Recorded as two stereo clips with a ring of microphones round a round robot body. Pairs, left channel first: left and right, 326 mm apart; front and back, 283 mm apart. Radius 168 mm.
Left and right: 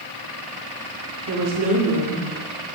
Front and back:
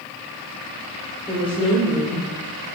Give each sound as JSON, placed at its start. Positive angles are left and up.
{"t": 1.3, "sound": "a woman speaking", "azimuth_deg": -70, "distance_m": 1.2}